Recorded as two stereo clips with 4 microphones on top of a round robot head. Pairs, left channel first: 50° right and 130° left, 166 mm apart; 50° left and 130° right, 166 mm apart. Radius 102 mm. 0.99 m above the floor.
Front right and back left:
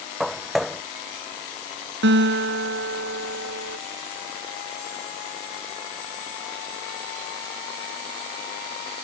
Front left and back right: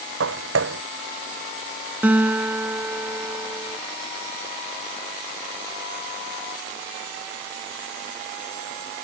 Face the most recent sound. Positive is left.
turn(degrees=150)